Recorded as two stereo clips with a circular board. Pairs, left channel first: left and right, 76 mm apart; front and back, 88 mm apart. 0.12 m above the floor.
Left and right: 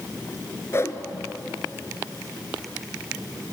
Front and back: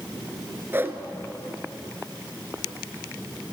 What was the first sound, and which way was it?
A whoosh, 125° left.